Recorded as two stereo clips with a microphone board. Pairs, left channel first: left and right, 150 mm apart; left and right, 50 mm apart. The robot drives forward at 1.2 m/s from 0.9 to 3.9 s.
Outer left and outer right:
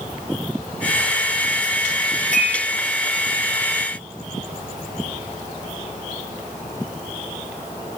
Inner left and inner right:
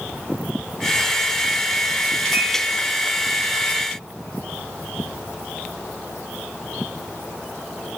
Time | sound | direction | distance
2.3 | dishes clattering | 70° right (ahead or behind) | 3.5 m